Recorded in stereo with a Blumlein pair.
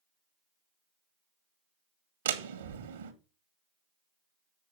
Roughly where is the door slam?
Ahead right.